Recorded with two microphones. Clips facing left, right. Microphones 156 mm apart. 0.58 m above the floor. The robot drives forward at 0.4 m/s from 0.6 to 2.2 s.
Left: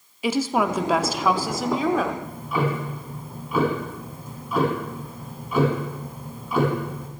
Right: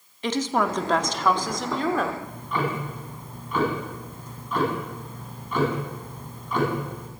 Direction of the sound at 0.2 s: 10° left (ahead or behind).